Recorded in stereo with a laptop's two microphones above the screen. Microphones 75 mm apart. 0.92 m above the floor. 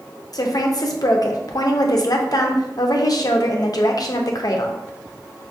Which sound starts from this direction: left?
A woman speaking, at 0.3 s.